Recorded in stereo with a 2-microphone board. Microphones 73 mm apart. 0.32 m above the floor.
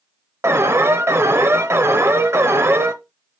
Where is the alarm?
35° right (ahead or behind), 0.8 m.